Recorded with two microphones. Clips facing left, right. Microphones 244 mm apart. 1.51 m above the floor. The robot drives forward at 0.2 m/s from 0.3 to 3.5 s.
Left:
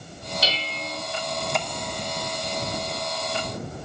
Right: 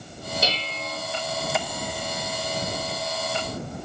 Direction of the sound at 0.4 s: 50° right (ahead or behind).